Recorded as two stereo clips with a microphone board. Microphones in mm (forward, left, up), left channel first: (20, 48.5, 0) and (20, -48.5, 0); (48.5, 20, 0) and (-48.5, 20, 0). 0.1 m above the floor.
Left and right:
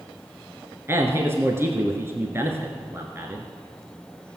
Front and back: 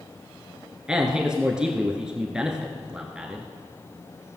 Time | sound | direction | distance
0.9 | a man speaking | 110° right | 1.2 m